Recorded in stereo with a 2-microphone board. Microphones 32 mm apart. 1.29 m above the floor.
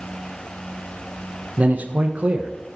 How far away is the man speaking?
About 0.7 m.